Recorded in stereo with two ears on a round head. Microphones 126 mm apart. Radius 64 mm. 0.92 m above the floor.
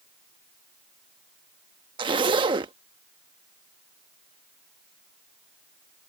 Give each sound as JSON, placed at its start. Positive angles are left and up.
{"t": 2.0, "sound": "a zipper", "side_deg": -35}